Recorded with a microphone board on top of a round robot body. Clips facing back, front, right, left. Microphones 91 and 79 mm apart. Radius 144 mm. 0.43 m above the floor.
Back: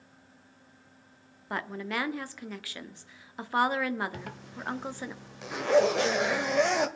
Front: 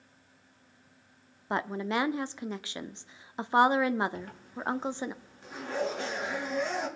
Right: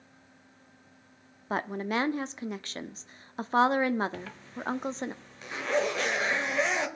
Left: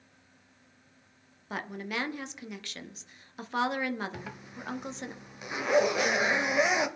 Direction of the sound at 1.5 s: 55° right.